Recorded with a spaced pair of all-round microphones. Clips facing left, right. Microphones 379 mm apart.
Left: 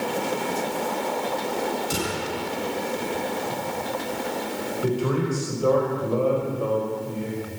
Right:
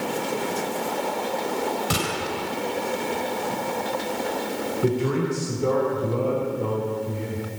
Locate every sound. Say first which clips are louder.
1.9 s a gunshot: even; 80° right, 4.5 m
4.8 s a man speaking: right 1 dB; 35° right (ahead or behind), 5 m